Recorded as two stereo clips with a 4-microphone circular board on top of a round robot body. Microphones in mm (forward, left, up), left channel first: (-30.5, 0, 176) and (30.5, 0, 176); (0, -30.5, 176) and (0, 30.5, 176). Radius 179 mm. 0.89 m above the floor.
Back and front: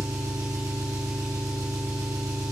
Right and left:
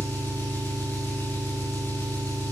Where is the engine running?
35° right, 3.5 m.